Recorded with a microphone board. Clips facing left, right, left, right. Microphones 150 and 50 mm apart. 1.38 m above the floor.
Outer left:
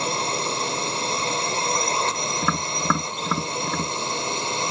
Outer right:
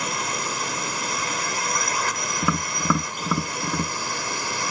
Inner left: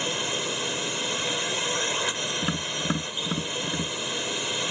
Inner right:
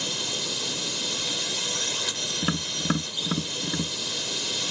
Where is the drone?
30° left (ahead or behind); by 4.7 s 25° left (ahead or behind).